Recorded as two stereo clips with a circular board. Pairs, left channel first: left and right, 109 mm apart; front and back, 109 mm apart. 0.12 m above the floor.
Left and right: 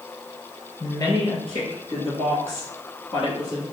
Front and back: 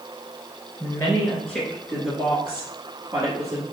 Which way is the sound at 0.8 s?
60° left.